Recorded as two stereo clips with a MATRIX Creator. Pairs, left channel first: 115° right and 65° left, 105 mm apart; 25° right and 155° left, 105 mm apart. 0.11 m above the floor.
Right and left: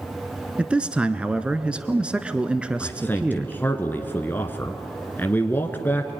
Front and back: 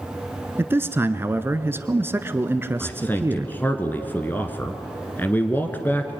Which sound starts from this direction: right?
A man speaking, at 2.8 s.